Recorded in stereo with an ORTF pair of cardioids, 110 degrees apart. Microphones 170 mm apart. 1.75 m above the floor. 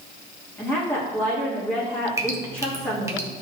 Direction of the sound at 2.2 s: 15° right.